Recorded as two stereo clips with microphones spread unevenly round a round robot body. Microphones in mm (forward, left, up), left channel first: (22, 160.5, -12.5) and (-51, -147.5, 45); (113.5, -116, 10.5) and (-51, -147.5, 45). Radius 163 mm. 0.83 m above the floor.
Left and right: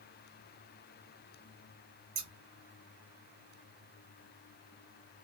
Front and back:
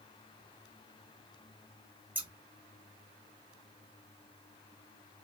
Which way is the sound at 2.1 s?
115° right.